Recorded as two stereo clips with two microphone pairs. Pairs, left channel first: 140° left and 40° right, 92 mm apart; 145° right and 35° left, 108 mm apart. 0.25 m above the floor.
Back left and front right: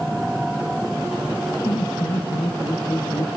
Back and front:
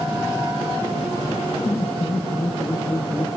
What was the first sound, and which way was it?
Laughter, 160° left.